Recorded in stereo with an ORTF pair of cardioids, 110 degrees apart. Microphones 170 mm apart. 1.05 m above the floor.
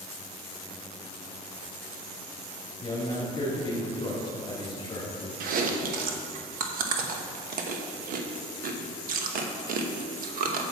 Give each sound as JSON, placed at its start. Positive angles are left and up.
{"t": 2.8, "sound": "a man speaking", "azimuth_deg": 30, "distance_m": 2.5}
{"t": 5.4, "sound": "chewing", "azimuth_deg": -60, "distance_m": 1.0}